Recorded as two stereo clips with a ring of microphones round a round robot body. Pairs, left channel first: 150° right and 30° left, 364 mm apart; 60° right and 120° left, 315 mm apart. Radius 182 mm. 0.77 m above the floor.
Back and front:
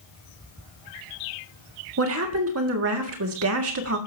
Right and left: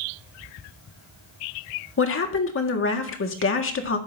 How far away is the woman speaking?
About 1.8 m.